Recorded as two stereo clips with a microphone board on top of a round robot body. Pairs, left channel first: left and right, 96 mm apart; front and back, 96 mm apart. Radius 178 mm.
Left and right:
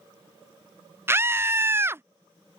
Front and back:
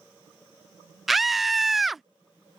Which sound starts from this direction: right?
A scream, at 1.1 s.